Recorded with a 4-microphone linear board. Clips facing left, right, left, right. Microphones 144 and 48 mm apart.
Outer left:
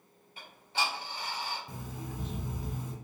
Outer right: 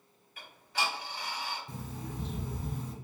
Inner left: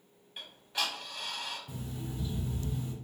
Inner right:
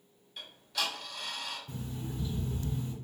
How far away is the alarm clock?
About 1.1 m.